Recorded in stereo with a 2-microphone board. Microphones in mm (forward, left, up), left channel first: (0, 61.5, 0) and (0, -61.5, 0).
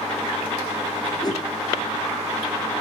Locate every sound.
1.2 s a whoosh: 35° left (ahead or behind), 3.5 m